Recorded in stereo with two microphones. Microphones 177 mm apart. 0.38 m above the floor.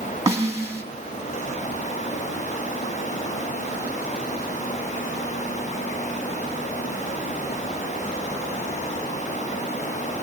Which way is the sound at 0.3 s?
15° right (ahead or behind).